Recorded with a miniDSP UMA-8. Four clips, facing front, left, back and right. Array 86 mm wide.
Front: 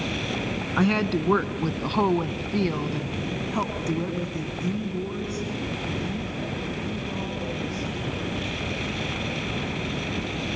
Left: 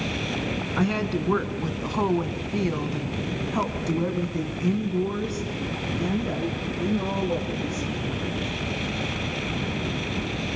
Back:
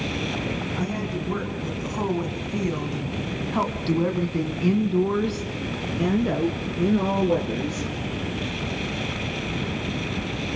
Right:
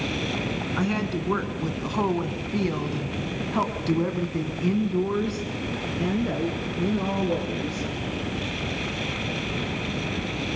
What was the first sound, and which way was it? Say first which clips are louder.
A woman speaking: left 2 dB, front 5 dB; 5° left.